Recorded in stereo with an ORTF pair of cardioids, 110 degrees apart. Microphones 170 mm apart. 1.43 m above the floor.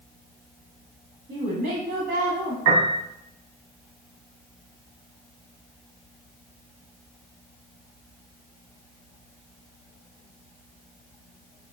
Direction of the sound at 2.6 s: 70° right.